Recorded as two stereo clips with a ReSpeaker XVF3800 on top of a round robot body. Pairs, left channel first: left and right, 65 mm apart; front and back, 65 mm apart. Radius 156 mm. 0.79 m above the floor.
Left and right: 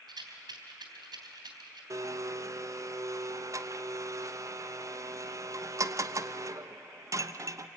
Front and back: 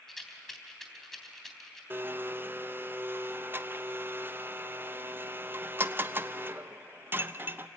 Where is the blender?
125° right, 0.9 m.